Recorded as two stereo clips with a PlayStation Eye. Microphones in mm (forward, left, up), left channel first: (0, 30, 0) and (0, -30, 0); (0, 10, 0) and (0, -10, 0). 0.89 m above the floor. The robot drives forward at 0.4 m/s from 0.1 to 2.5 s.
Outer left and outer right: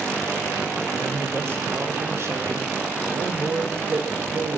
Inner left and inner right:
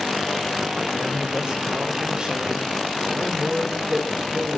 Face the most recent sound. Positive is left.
turn(degrees=-45)  # may be behind; listen again after turning